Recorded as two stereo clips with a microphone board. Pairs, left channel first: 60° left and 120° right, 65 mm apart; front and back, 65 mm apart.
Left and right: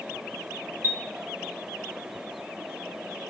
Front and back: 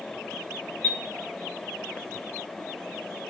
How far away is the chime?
About 1.4 m.